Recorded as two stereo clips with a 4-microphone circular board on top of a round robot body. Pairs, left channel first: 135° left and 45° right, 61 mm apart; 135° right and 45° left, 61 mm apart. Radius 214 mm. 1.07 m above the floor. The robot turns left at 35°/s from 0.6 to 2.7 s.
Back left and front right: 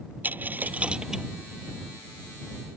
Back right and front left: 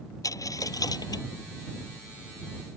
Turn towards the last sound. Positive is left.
turn(degrees=180)